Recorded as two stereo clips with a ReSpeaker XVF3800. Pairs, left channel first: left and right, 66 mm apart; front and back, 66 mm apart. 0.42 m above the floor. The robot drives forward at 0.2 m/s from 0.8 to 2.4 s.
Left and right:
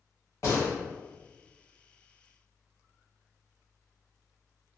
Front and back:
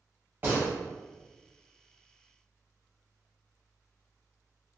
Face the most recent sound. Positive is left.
turn(degrees=130)